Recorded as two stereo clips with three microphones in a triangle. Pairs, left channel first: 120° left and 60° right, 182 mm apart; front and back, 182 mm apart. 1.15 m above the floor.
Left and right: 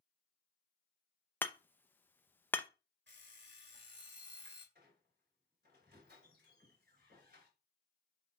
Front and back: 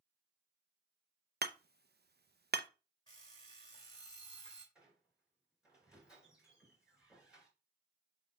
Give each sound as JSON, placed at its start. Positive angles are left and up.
{"t": 1.4, "sound": "hammering", "azimuth_deg": -160, "distance_m": 0.6}
{"t": 3.1, "sound": "an alarm clock", "azimuth_deg": -65, "distance_m": 2.0}
{"t": 4.8, "sound": "a squeak", "azimuth_deg": -95, "distance_m": 3.5}